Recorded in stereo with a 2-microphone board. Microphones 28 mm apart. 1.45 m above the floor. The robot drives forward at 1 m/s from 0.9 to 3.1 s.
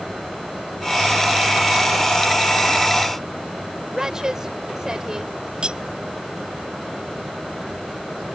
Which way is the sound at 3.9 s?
25° right (ahead or behind).